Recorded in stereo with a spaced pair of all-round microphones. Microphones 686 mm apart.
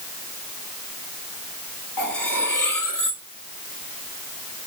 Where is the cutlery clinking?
25° left (ahead or behind), 1.9 m.